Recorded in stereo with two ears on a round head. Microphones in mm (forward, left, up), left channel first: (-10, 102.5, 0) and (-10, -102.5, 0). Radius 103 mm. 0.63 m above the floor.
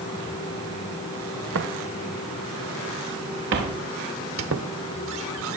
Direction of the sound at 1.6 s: 60° right (ahead or behind).